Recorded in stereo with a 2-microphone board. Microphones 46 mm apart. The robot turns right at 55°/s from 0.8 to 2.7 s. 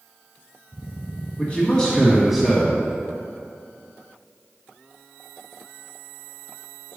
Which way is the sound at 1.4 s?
130° left.